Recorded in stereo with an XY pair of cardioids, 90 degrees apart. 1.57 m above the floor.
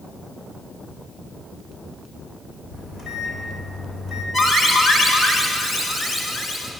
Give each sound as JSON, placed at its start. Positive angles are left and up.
{"t": 2.7, "sound": "a microwave", "azimuth_deg": 65, "distance_m": 7.0}
{"t": 4.3, "sound": "an alarm", "azimuth_deg": 55, "distance_m": 5.0}